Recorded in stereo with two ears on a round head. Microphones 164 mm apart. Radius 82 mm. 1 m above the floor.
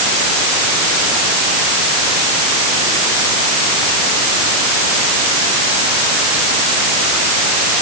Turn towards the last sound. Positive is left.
No sound to turn to.